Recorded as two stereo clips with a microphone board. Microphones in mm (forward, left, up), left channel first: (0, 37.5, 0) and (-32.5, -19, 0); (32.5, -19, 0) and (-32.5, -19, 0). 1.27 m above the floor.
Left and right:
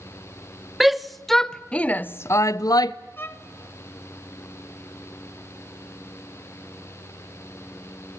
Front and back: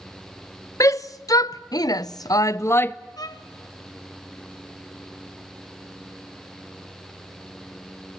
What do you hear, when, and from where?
0.8 s a shout: 35° right, 1.0 m; by 3.0 s 55° left, 0.5 m
3.2 s a violin: 5° left, 0.8 m